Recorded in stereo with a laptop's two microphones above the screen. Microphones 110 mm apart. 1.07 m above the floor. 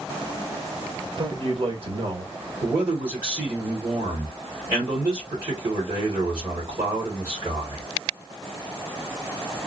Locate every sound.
1.2 s a man speaking: 55° right (ahead or behind), 1.3 m
2.6 s a man speaking: 40° right (ahead or behind), 2 m